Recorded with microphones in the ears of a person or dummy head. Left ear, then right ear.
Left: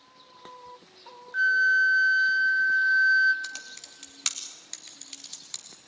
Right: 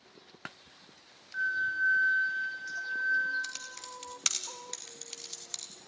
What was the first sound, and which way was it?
A flute, 85° left.